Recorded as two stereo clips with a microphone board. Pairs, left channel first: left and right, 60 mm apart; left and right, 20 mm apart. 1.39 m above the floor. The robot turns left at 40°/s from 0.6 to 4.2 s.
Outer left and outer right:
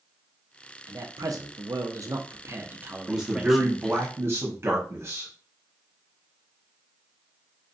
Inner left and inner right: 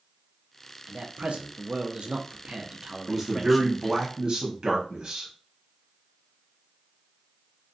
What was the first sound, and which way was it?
A man speaking, 70° right.